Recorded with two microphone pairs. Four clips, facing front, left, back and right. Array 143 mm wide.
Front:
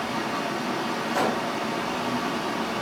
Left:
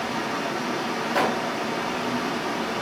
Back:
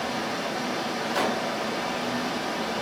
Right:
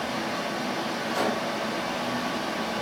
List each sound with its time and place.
0.0 s running water: 95° left, 0.8 m
1.1 s a gunshot: 95° left, 0.5 m